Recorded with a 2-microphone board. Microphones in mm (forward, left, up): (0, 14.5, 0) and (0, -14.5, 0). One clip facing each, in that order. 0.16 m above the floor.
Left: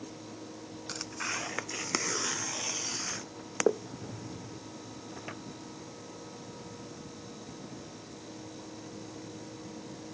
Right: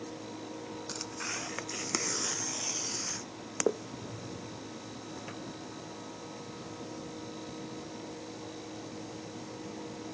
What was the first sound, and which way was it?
Tearing paper, 15° left (ahead or behind).